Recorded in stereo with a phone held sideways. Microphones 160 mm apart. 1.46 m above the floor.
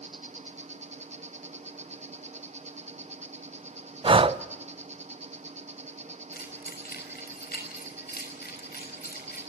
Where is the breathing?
35° right (ahead or behind), 0.5 m.